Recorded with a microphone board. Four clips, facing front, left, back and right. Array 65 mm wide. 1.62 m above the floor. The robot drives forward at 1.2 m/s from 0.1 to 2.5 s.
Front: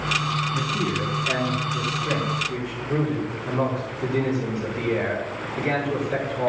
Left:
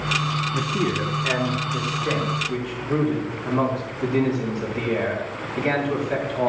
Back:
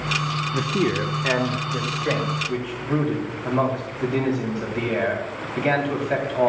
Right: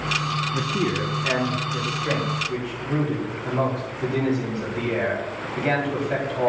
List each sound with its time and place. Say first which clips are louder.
0.5 s a man speaking: even, back 3 dB; 175° right, 0.7 m; by 6.5 s straight behind, 3 m